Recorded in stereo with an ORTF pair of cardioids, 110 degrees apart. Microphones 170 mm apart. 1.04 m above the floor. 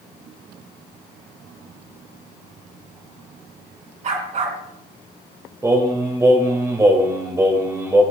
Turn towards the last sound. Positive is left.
turn(degrees=-15)